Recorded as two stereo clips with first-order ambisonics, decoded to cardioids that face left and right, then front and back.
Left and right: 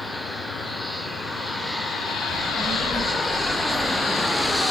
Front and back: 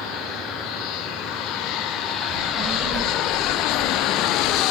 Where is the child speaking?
165° right, 0.7 m; by 4.6 s 160° right, 2.0 m.